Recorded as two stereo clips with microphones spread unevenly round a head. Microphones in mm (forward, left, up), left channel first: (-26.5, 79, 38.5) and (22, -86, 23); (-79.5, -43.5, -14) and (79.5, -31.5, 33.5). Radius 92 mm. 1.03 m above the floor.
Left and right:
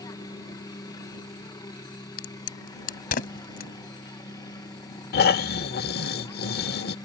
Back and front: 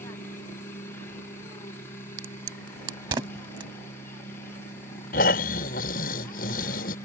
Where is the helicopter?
160° left.